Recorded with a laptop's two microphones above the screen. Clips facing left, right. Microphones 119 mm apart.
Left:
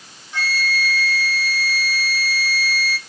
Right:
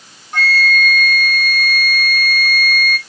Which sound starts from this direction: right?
A flute, at 0.3 s.